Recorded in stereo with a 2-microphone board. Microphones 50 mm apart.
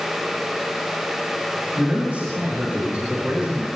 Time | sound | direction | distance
1.8 | a man speaking | 30° right (ahead or behind) | 10 m